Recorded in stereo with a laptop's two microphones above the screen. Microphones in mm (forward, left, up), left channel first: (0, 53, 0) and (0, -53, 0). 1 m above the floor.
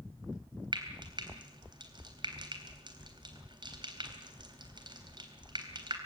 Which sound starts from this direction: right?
Frying, at 0.7 s.